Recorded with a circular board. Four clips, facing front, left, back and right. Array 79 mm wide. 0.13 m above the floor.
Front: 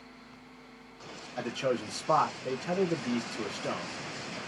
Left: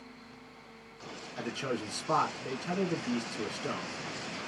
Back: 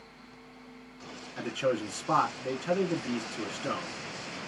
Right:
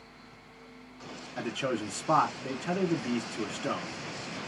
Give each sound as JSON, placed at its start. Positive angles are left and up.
{"t": 1.4, "sound": "a man speaking", "azimuth_deg": -125, "distance_m": 1.1}